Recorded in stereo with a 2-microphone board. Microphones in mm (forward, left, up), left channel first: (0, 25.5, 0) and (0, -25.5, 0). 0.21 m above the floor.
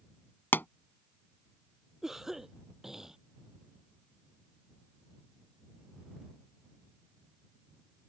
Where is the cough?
5° right (ahead or behind).